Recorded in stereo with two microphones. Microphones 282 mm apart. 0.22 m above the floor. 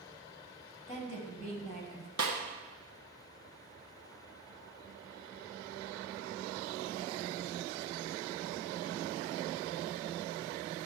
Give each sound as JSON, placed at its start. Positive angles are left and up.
{"t": 0.9, "sound": "a woman speaking", "side_deg": 25, "distance_m": 1.3}
{"t": 2.2, "sound": "a snare drum", "side_deg": -75, "distance_m": 1.4}